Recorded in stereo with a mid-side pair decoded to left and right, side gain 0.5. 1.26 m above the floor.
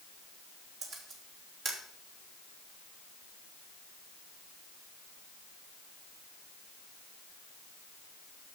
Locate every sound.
0.8 s a camera shutter: 60° right, 3.5 m